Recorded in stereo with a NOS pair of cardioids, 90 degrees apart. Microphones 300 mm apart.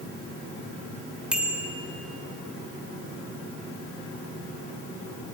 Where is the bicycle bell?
5° right, 4 m.